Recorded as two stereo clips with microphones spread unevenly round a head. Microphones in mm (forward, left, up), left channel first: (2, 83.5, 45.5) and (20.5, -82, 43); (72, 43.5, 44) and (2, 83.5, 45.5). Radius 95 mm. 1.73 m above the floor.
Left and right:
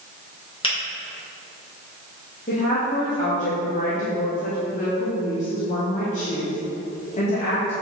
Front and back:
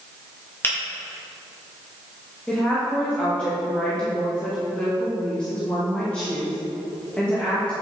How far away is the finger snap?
About 2 m.